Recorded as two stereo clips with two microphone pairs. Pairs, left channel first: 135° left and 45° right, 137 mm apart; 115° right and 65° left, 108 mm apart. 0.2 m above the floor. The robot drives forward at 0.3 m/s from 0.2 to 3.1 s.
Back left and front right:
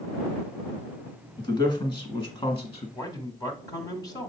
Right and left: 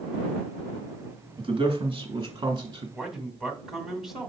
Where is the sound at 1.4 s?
85° left, 2 m; by 2.9 s 100° left, 2 m.